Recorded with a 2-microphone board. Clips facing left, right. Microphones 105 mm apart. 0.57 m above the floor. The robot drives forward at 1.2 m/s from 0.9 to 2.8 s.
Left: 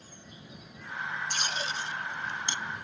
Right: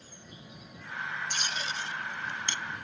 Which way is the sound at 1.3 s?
50° left (ahead or behind).